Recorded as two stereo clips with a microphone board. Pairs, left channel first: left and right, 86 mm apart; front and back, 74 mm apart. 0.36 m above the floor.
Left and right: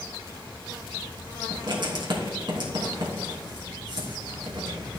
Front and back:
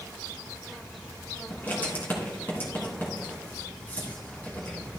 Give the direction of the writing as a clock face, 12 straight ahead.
2 o'clock.